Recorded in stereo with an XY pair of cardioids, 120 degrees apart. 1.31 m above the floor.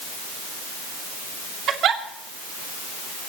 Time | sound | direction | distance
1.7 | a giggle | 60° right | 2.5 m